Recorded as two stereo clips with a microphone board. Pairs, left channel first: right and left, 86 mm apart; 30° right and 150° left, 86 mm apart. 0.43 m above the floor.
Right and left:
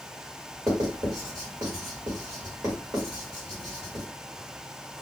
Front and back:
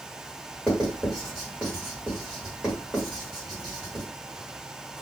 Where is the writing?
65° left, 1.6 m.